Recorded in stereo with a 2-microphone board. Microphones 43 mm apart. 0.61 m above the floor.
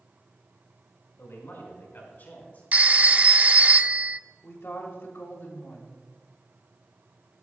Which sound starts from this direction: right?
A phone ringing, at 2.7 s.